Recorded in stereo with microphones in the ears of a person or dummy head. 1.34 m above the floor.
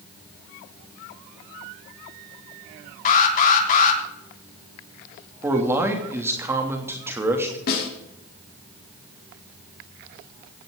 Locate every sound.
3.0 s an alarm: 55° left (ahead or behind), 3 m
5.4 s a man speaking: 20° right (ahead or behind), 3 m
7.7 s a snare drum: 55° left (ahead or behind), 3.5 m